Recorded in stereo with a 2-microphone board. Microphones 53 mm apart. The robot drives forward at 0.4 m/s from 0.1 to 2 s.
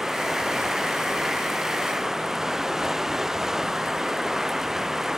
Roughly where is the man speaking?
No man speaking in this recording.